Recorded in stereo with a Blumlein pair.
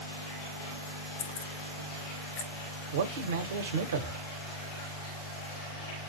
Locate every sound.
1.2 s keys jangling: 55° left, 0.8 m; by 2.5 s 75° left, 1.6 m
2.9 s a man speaking: 60° right, 1.1 m